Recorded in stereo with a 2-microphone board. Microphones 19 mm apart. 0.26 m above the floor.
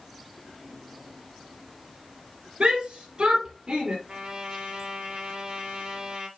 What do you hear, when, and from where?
2.6 s a shout: 75° right (ahead or behind), 4.5 m; by 4.0 s 80° right, 4.5 m
4.1 s a trumpet: 55° right (ahead or behind), 3 m